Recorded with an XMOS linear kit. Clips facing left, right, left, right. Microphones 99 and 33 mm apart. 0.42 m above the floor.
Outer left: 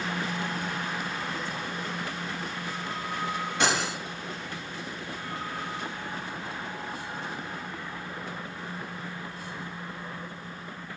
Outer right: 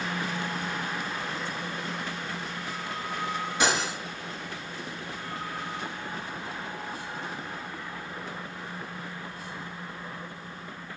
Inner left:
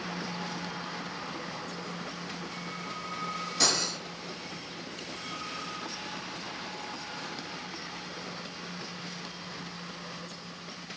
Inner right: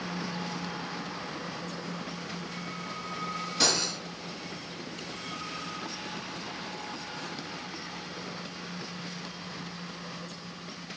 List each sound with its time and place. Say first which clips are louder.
3.6 s cutlery clinking: even, inner right 1 dB; 5° right (ahead or behind), 1.5 m